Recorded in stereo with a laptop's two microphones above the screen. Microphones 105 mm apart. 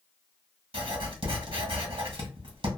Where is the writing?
60° right (ahead or behind), 1.2 m.